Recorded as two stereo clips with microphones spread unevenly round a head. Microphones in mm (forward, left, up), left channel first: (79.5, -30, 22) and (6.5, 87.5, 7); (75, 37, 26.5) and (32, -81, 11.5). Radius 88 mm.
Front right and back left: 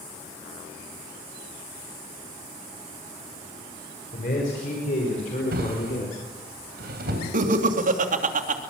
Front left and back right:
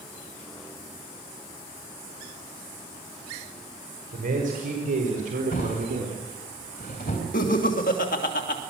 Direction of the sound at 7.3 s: 105° left.